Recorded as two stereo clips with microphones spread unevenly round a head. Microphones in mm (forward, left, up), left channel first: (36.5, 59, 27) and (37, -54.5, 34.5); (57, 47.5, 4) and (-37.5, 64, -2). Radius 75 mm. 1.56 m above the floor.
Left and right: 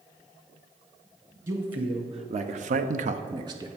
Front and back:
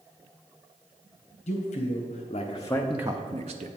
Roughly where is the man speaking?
Ahead right.